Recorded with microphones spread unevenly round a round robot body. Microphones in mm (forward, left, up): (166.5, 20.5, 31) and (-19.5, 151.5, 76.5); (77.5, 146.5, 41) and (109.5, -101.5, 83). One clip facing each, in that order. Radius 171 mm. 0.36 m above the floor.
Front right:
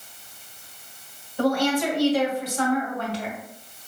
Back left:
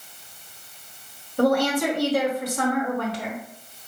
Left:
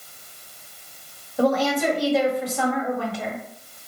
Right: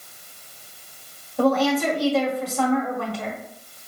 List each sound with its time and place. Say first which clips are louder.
1.4 s a woman speaking: back left 2 dB, right 1 dB; 175° left, 1.1 m